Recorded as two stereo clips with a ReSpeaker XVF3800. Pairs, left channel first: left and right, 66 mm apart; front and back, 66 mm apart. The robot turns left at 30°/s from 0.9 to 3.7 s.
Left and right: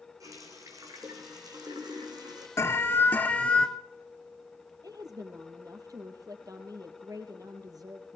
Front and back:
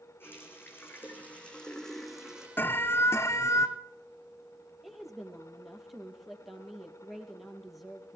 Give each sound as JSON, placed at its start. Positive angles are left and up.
{"t": 0.2, "sound": "a running tap", "azimuth_deg": -55, "distance_m": 4.5}
{"t": 2.6, "sound": "an alarm", "azimuth_deg": 50, "distance_m": 1.5}
{"t": 4.8, "sound": "a woman speaking", "azimuth_deg": -95, "distance_m": 3.5}